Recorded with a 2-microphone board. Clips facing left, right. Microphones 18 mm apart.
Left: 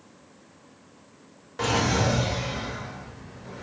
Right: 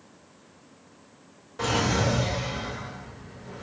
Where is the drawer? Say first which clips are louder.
Left 1 dB; 30° left (ahead or behind), 0.9 m.